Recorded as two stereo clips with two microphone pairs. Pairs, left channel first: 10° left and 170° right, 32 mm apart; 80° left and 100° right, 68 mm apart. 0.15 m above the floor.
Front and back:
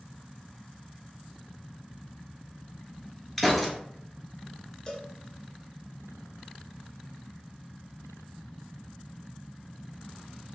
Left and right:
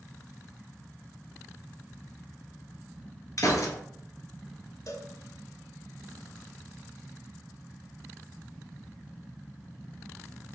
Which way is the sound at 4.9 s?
70° left.